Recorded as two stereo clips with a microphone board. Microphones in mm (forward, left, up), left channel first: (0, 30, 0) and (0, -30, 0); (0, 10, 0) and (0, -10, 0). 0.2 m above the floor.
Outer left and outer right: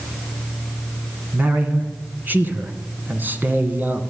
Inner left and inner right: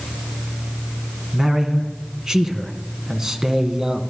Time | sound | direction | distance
1.3 | a man speaking | 30° right (ahead or behind) | 2 m